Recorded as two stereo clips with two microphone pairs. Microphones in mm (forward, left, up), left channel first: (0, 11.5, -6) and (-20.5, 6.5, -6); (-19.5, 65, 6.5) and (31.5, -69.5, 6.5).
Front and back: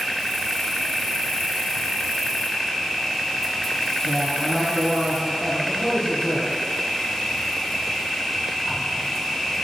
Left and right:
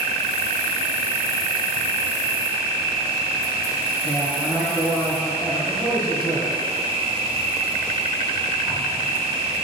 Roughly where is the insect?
Ahead right.